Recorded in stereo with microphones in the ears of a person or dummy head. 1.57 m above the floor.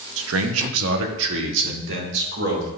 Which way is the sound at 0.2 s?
70° right (ahead or behind).